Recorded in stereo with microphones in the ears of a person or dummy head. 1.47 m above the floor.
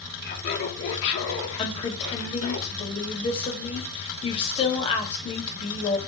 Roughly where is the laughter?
Left.